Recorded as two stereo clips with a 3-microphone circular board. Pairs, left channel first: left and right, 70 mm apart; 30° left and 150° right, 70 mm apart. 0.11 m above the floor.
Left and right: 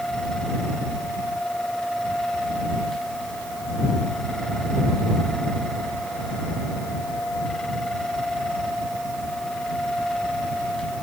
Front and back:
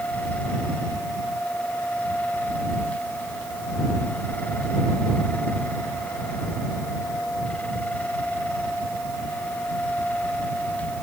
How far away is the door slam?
I don't hear a door slam.